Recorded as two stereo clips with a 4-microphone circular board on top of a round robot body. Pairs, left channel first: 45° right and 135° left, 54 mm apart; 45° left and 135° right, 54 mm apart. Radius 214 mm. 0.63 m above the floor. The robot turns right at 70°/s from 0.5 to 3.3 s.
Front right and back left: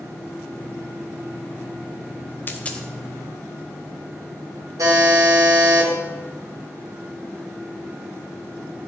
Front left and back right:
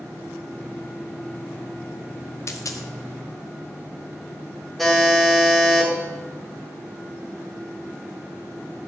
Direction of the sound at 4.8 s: 130° left.